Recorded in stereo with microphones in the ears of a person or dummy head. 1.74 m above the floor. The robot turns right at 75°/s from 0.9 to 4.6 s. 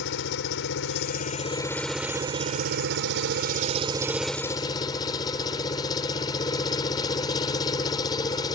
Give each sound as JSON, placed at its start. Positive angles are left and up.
{"t": 0.0, "sound": "an engine running", "azimuth_deg": 105}